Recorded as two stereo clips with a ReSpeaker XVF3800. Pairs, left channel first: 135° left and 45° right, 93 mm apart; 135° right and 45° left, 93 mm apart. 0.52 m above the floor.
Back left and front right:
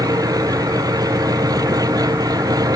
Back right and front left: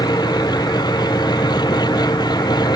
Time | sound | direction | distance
0.0 | an engine running | 95° right | ?